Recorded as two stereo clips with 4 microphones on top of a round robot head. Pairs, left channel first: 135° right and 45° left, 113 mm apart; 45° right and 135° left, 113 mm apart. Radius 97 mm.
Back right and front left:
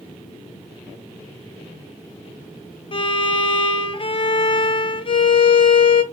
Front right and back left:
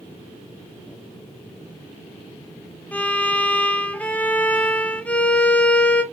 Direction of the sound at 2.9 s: 120° right.